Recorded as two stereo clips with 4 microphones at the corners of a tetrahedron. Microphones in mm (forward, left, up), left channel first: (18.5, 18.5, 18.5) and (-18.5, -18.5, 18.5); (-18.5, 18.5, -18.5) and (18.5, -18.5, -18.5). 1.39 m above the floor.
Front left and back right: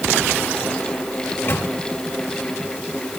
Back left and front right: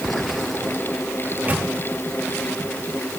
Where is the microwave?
5° left, 2.0 m.